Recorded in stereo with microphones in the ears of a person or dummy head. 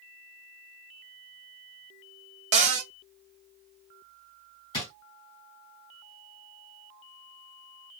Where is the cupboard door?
30° right (ahead or behind), 0.6 m.